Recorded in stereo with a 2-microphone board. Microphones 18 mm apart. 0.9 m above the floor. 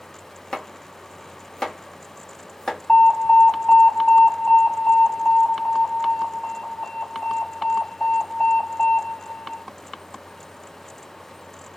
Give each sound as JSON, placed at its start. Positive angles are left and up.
{"t": 0.5, "sound": "chopping", "side_deg": 40, "distance_m": 1.4}
{"t": 2.9, "sound": "an alarm", "side_deg": 60, "distance_m": 1.6}